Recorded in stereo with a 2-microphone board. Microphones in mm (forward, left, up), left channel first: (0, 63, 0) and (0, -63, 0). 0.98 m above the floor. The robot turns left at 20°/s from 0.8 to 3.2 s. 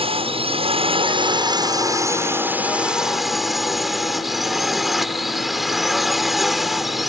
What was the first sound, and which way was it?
A drone, 130° right.